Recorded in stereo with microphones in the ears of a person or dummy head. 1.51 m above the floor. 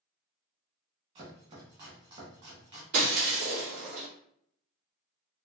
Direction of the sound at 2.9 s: 45° right (ahead or behind).